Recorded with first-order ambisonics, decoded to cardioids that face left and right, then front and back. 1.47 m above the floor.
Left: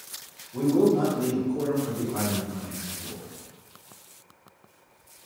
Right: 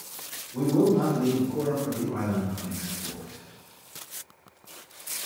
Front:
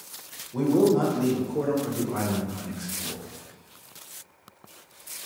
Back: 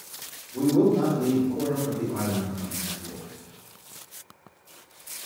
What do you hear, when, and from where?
0.5 s a man speaking: 5° left, 1.1 m